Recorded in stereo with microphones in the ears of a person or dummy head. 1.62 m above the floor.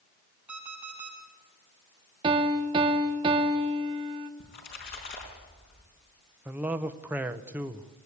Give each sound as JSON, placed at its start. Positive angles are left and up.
{"t": 0.5, "sound": "an alarm clock", "side_deg": -5, "distance_m": 7.5}
{"t": 2.2, "sound": "a piano", "side_deg": -30, "distance_m": 1.3}
{"t": 4.4, "sound": "a splash", "side_deg": 50, "distance_m": 5.0}
{"t": 6.5, "sound": "a man speaking", "side_deg": -5, "distance_m": 1.0}